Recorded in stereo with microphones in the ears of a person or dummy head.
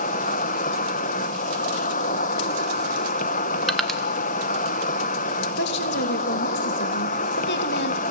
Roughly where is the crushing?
Centre.